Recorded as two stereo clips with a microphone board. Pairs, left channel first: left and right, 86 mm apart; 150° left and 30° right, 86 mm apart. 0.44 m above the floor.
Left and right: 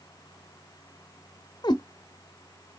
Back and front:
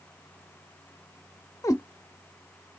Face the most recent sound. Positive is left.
turn(degrees=105)